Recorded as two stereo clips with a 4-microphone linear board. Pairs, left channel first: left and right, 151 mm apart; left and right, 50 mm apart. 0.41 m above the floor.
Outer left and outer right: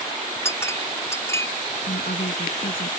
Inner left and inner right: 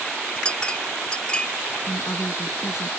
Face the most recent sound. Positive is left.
turn(degrees=75)  # may be behind; listen again after turning